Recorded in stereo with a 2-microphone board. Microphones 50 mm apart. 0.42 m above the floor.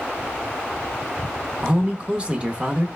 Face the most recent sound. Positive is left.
turn(degrees=-25)  # may be behind; listen again after turning